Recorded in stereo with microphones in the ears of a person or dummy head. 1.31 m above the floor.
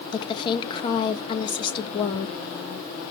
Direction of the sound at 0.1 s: 35° left (ahead or behind).